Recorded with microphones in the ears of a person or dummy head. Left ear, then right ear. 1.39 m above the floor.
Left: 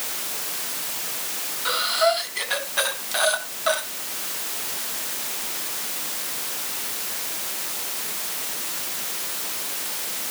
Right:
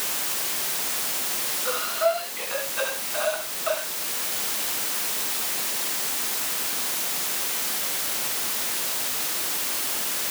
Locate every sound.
1.6 s breathing: 40° left (ahead or behind), 3 m